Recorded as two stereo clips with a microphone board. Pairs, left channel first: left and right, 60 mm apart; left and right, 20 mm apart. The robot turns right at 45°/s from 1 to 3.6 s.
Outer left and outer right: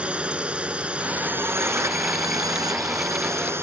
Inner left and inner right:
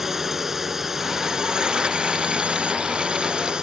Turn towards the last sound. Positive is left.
turn(degrees=-45)